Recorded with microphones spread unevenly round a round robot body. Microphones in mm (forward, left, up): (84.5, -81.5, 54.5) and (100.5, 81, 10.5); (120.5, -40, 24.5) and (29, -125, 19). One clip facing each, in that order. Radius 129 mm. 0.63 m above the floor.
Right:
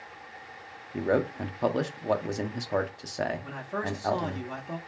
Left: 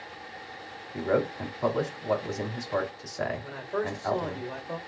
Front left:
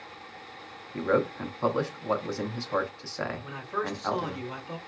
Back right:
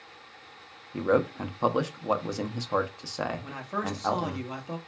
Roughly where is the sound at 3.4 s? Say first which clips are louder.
Left 3 dB, even; behind right.